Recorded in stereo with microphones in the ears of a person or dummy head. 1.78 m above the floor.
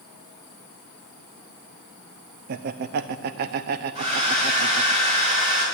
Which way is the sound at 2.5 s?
55° right (ahead or behind).